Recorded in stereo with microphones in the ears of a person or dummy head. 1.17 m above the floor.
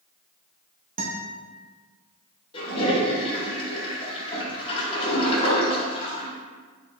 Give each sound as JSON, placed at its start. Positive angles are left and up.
{"t": 1.0, "sound": "a guitar", "side_deg": -45, "distance_m": 0.7}
{"t": 2.5, "sound": "a toilet flushing", "side_deg": 30, "distance_m": 1.2}